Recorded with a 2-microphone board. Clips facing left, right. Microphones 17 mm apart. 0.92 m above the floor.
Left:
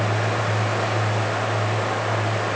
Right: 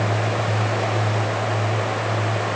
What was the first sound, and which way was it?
Only background noise.